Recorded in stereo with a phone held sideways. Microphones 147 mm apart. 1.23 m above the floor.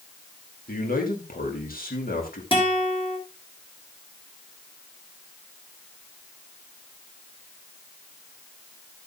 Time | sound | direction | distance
0.7 | a man speaking | 80° left | 2.5 m
2.5 | a guitar | 35° left (ahead or behind) | 3 m